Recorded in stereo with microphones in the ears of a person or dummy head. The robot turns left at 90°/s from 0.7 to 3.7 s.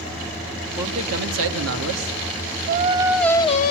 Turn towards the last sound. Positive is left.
turn(degrees=135)